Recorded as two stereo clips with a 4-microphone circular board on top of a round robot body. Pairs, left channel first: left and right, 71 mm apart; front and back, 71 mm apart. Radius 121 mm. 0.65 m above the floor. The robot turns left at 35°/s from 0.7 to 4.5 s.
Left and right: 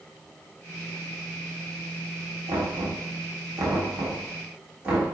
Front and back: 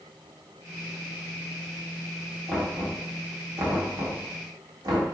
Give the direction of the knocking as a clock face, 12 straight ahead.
3 o'clock.